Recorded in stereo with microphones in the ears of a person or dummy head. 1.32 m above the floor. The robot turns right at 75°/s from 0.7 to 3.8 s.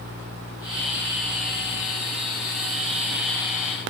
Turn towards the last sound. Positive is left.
No sound to turn to.